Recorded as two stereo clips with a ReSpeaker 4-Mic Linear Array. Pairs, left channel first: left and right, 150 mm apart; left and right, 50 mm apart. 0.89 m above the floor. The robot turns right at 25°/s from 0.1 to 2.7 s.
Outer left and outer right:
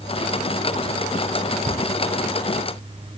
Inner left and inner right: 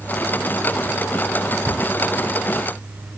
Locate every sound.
1.6 s a cupboard door: 85° right, 3.5 m; by 1.9 s 80° right, 3.5 m